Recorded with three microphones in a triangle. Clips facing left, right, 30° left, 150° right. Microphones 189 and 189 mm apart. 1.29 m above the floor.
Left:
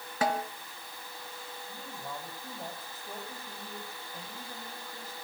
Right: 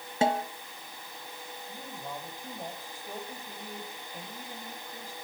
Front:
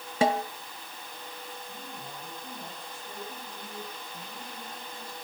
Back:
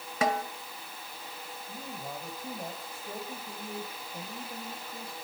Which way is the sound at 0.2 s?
30° right.